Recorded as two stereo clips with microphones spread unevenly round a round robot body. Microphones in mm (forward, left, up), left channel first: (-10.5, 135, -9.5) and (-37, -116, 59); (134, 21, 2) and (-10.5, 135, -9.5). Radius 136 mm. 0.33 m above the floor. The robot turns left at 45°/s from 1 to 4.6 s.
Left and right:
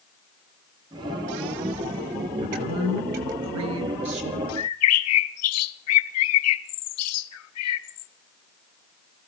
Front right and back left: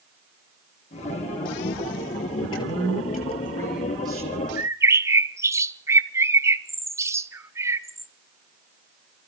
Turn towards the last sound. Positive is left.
turn(degrees=65)